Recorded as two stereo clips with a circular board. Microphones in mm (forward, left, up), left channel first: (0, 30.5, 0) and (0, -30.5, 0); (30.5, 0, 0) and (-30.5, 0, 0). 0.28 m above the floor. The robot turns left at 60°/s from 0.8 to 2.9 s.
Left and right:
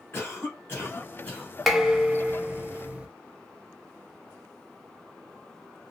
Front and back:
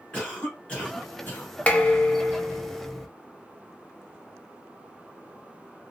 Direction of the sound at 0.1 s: 65° left.